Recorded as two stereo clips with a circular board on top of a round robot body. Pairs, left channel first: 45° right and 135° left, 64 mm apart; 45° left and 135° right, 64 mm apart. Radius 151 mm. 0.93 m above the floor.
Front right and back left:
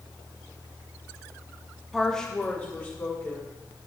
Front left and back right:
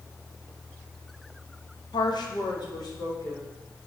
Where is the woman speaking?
45° left, 0.9 m; by 3.5 s 15° left, 2.5 m.